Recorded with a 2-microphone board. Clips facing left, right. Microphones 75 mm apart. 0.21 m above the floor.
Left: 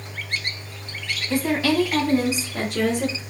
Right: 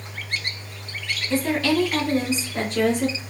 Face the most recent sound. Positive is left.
turn(degrees=5)  # may be behind; listen again after turning